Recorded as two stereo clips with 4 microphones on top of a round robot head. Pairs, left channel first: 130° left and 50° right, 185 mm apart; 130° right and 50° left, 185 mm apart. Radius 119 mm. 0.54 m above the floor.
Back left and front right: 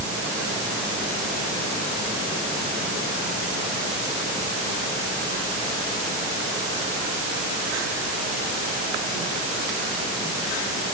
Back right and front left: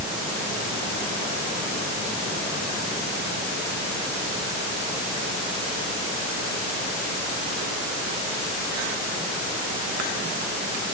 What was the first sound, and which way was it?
Only background noise.